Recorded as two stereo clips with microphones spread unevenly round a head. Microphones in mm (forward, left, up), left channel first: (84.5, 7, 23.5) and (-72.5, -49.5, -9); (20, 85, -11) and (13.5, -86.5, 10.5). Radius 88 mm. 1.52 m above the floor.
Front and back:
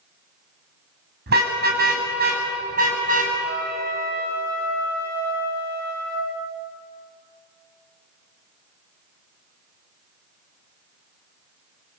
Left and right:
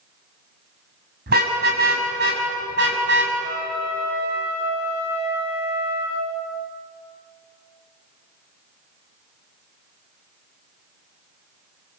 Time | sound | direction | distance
1.3 | a car horn | 130° right | 6 m
3.4 | a trumpet | 130° right | 7.5 m